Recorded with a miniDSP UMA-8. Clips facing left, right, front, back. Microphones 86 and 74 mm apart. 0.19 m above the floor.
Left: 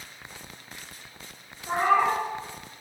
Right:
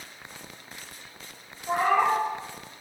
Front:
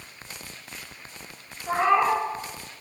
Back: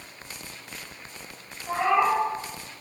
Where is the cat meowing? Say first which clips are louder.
Even, front 1 dB; 35° left, 1.4 m.